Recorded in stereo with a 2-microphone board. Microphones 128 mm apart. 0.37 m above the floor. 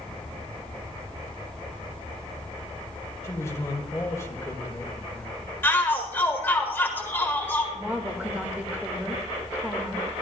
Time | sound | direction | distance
3.2 | a man speaking | 25° left (ahead or behind) | 1.5 m
5.6 | a shout | 15° left (ahead or behind) | 1.1 m
7.8 | a woman speaking | 15° right (ahead or behind) | 1.2 m